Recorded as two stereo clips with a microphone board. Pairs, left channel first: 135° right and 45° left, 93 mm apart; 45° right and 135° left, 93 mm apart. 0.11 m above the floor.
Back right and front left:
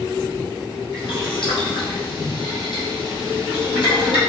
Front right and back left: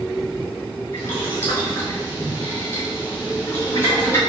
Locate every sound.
0.9 s boiling: 110° right, 1.9 m